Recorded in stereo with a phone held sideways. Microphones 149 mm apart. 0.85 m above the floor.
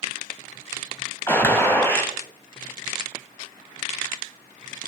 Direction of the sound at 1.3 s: 15° left (ahead or behind).